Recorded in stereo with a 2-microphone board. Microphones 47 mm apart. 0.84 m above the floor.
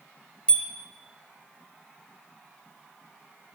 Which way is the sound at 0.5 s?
20° left (ahead or behind).